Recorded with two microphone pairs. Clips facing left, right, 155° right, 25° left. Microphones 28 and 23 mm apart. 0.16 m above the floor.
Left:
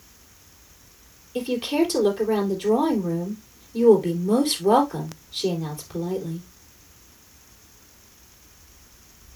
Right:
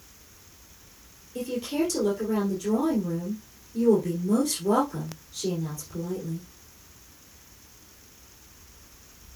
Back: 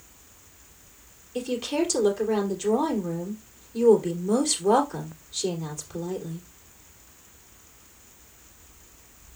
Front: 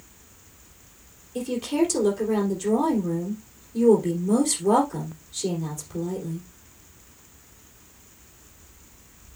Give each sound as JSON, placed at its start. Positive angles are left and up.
{"t": 1.4, "sound": "a woman speaking", "azimuth_deg": 135, "distance_m": 3.0}